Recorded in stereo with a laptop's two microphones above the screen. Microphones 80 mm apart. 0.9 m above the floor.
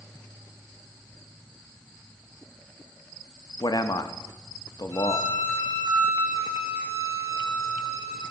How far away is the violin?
About 2 m.